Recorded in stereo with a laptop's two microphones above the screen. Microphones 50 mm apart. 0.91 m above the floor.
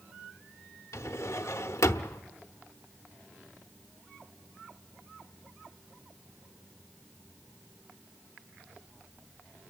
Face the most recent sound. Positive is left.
turn(degrees=75)  # may be behind; listen again after turning